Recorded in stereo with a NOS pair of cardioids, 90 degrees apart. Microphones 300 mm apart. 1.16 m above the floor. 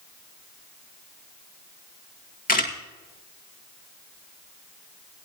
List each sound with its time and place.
2.5 s a camera shutter: 30° left, 2 m